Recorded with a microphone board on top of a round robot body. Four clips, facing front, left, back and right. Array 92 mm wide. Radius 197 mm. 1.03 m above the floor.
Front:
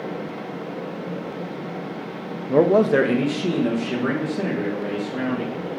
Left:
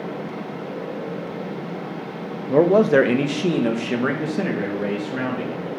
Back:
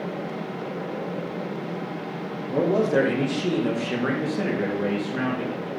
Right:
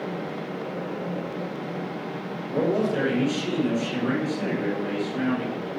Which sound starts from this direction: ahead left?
A man speaking, at 2.5 s.